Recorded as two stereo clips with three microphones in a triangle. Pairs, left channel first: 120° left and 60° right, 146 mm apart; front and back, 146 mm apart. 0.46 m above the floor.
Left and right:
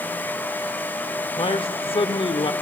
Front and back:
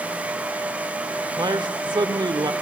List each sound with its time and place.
1.4 s a man speaking: 140° left, 1.0 m